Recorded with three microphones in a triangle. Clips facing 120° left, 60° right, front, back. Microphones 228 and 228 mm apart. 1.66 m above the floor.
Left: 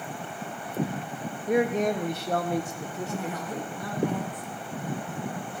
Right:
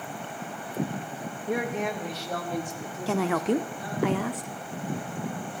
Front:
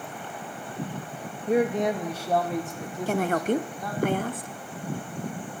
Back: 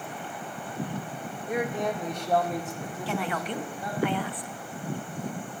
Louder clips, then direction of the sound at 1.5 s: Left 5 dB, front 6 dB; 45° left.